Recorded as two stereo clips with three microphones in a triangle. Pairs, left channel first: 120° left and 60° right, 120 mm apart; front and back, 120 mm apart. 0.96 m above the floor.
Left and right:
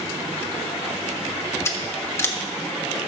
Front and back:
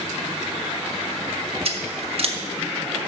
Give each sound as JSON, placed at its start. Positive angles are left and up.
{"t": 1.6, "sound": "scissors", "azimuth_deg": -175, "distance_m": 1.1}